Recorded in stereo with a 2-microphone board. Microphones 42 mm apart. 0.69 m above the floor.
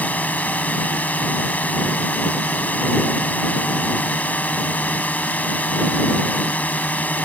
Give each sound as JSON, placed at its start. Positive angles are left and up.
{"t": 0.0, "sound": "a drone", "side_deg": 40}